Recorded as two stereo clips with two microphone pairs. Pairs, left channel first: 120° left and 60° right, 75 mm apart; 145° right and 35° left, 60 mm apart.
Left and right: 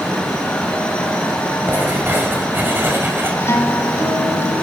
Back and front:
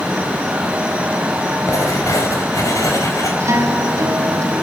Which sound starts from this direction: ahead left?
A guitar, at 3.4 s.